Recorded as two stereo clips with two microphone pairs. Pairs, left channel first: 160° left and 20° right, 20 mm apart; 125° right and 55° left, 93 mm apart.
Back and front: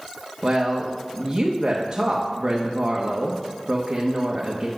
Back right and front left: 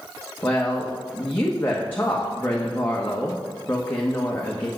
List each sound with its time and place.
0.4 s a woman speaking: 60° right, 1.2 m